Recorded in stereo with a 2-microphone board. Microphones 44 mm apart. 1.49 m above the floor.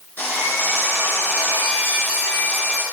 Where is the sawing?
40° left (ahead or behind), 9 m.